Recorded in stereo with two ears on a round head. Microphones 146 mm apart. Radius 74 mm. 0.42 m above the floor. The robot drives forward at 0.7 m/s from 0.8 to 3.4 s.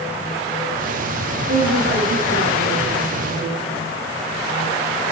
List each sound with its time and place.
1.5 s a woman speaking: 50° right (ahead or behind), 6 m; by 3.8 s 60° right (ahead or behind), 5 m